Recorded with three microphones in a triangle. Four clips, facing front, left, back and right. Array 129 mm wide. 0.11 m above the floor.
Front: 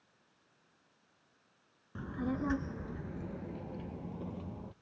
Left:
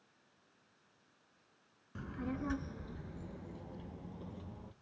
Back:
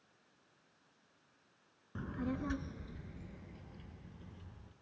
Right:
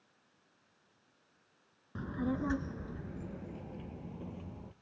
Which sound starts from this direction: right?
A child speaking, at 1.9 s.